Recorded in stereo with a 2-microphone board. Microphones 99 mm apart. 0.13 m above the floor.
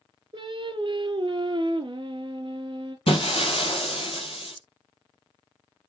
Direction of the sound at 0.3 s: 55° right (ahead or behind).